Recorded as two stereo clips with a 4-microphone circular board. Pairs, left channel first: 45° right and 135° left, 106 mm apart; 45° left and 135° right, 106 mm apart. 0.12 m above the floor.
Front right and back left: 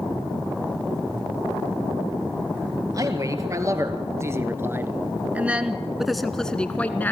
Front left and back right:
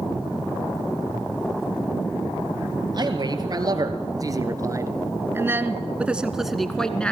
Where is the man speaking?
175° right, 2.5 m; by 7.1 s 15° right, 1.2 m.